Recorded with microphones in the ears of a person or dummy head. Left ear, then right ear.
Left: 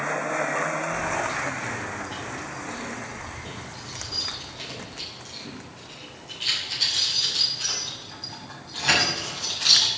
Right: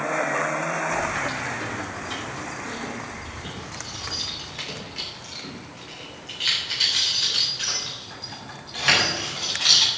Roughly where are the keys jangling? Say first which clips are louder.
Right 1 dB; right.